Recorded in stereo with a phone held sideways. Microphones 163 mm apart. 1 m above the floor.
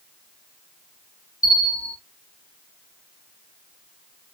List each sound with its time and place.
1.4 s a bell: 55° left (ahead or behind), 1.1 m